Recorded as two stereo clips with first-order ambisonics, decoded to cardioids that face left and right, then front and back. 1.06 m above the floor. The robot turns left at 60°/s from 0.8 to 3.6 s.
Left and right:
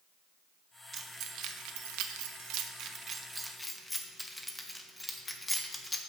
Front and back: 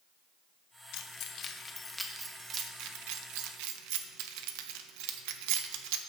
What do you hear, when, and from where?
0.9 s keys jangling: 25° right, 0.9 m; by 6.0 s 175° left, 0.9 m